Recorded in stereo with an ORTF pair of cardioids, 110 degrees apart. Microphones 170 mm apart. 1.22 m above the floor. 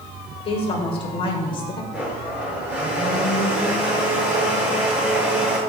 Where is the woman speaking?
40° left, 5.5 m; by 1.8 s 30° left, 5 m.